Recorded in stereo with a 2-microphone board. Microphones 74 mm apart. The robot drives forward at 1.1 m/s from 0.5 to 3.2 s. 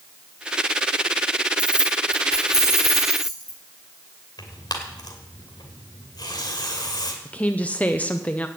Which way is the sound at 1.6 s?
15° right (ahead or behind).